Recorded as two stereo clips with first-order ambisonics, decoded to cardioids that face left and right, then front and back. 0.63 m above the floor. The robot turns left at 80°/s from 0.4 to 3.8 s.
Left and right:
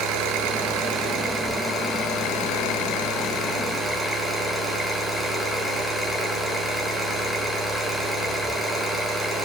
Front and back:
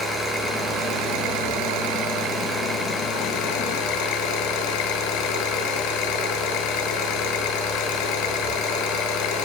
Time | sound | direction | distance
0.0 | an engine running | 80° right | 6.5 m